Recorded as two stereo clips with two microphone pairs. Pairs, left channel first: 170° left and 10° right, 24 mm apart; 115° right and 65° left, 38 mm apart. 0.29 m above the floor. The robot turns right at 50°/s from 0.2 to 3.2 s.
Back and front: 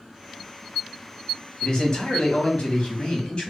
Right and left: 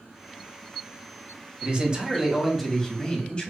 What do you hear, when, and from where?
1.6 s a man speaking: 115° left, 1.4 m; by 3.5 s 165° right, 1.4 m